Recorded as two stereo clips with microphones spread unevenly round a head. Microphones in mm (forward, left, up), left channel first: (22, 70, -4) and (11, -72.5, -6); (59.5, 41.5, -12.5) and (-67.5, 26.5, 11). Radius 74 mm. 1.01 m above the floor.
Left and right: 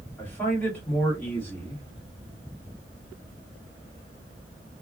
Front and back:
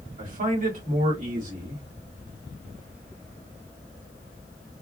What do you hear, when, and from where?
0.2 s a man speaking: 165° left, 1.9 m